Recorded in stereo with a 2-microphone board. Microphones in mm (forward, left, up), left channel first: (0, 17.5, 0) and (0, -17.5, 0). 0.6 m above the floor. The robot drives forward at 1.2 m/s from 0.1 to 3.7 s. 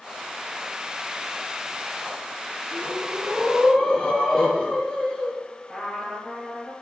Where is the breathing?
15° left (ahead or behind), 5.5 m.